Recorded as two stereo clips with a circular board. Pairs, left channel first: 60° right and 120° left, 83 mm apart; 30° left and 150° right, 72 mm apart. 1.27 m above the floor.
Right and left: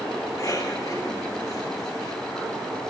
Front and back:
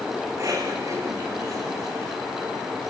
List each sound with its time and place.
0.3 s a cough: 105° right, 8.5 m